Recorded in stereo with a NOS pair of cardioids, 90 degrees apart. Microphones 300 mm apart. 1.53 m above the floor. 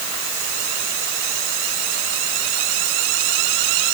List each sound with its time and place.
Only background noise.